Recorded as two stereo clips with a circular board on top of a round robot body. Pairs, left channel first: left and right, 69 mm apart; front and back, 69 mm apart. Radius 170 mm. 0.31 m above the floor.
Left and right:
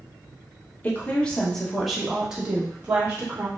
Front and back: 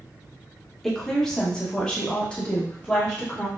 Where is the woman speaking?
75° left, 1.4 m; by 3.5 s 60° right, 1.6 m.